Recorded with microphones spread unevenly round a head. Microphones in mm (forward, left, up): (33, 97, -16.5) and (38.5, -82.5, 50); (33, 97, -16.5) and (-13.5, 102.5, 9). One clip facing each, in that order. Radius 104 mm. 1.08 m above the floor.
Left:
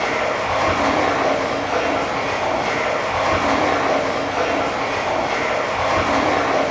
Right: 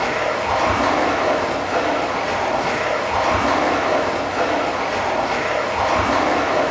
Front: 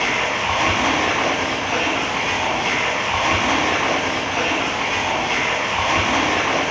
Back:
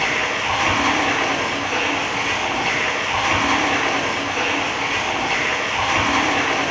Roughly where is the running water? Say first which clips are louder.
Even, even; ahead right.